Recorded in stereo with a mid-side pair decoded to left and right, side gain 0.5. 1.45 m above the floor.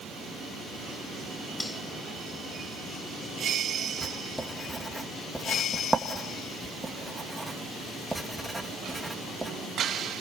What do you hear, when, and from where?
1.6 s cutlery clinking: 10° left, 7.5 m
4.0 s writing: 10° right, 2.5 m